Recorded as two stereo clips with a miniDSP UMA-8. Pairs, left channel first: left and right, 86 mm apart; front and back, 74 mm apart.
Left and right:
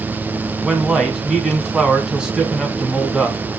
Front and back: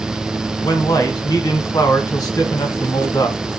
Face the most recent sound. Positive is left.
turn(degrees=-10)